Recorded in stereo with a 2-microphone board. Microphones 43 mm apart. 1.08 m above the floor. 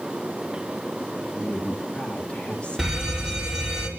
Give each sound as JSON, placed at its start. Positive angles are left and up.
{"t": 1.3, "sound": "a woman speaking", "side_deg": 30, "distance_m": 1.3}
{"t": 2.8, "sound": "a fire alarm", "side_deg": -10, "distance_m": 5.0}